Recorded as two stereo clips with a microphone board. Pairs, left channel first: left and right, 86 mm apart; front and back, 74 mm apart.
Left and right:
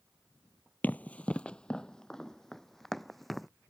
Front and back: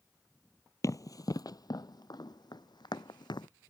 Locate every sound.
0.8 s running footsteps: 25° left; by 3.5 s straight ahead